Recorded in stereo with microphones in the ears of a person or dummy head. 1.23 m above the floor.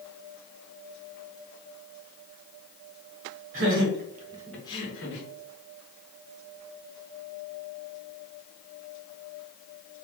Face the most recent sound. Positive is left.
turn(degrees=55)  # may be behind; listen again after turning